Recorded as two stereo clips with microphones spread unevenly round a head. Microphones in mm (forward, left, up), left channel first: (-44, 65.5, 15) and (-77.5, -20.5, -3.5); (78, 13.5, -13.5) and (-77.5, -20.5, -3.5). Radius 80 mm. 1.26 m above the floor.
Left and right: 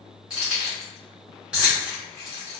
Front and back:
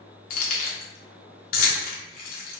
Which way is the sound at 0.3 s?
25° right.